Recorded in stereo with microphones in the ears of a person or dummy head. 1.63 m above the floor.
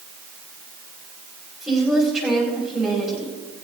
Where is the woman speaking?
5° right (ahead or behind), 4.5 m.